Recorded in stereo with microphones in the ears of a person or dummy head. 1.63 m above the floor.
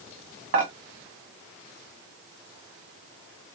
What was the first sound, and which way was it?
Dishes clattering, 40° right (ahead or behind).